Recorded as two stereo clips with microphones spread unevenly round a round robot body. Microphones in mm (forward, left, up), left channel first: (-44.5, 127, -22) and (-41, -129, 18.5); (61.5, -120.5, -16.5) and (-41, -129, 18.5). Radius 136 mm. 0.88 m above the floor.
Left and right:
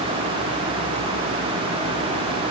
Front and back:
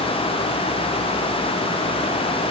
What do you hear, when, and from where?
Only background noise.